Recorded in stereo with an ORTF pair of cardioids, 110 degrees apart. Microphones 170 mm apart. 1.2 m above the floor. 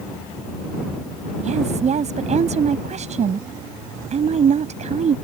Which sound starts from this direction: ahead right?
A woman speaking, at 1.4 s.